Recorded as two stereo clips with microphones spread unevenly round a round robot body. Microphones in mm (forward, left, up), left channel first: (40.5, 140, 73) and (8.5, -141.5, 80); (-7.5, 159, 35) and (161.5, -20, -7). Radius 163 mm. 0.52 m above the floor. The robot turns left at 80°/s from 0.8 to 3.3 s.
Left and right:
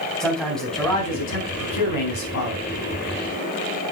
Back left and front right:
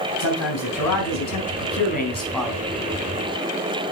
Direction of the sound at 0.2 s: 170° left.